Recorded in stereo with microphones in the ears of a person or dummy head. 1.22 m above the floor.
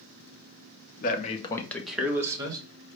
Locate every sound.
1.0 s a man speaking: 50° left (ahead or behind), 0.9 m; by 2.6 s 25° right (ahead or behind), 1.4 m